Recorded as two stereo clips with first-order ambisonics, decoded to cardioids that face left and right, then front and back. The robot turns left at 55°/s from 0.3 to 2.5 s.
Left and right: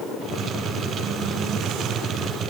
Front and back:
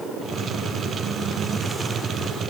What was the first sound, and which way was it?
Only background noise.